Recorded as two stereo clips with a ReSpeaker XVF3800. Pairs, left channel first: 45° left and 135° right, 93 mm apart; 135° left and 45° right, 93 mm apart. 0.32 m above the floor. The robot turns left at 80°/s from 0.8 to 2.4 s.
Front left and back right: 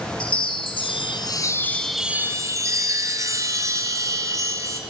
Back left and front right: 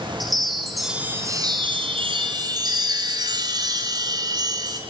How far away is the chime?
About 2 m.